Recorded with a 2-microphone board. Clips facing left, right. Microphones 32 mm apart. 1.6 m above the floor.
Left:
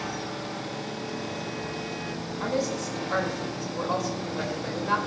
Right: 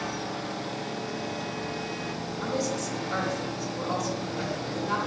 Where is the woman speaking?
25° left (ahead or behind), 3.5 m.